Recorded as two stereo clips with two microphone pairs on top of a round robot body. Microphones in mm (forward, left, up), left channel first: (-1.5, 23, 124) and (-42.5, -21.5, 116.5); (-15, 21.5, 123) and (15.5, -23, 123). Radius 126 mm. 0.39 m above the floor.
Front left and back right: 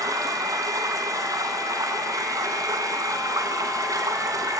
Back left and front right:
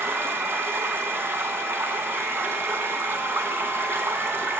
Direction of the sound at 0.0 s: 105° right.